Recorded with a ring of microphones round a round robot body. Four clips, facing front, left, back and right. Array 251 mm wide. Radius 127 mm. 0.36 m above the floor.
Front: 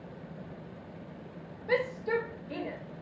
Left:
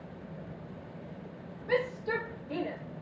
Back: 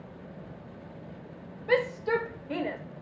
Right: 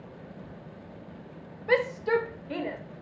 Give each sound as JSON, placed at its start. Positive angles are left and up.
{"t": 1.7, "sound": "a shout", "azimuth_deg": -110, "distance_m": 1.2}